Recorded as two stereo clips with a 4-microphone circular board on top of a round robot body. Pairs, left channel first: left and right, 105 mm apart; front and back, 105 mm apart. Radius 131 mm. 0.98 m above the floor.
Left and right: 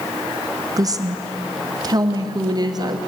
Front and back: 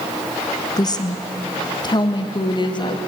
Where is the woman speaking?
45° right, 1.4 m; by 3.0 s 40° right, 2.5 m.